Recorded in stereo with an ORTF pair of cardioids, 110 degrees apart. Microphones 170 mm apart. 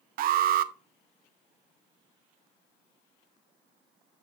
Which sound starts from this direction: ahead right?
An alarm, at 0.2 s.